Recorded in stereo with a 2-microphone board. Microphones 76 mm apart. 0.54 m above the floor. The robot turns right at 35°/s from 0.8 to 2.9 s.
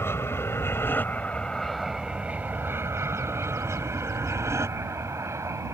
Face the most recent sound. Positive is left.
turn(degrees=-45)  # may be behind; listen again after turning